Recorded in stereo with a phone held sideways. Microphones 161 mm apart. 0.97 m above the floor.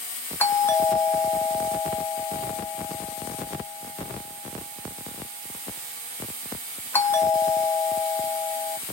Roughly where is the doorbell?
Centre.